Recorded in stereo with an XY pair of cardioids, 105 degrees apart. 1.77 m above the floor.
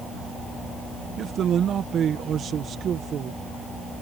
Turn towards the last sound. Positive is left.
turn(degrees=-60)